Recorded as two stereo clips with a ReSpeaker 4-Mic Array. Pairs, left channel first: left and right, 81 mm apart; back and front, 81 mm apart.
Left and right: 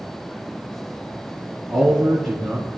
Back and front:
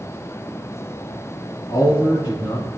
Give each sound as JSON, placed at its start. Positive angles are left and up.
{"t": 1.7, "sound": "a man speaking", "azimuth_deg": 180, "distance_m": 3.0}